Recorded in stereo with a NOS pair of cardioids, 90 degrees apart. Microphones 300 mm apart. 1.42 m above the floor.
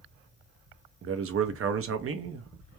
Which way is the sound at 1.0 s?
45° right.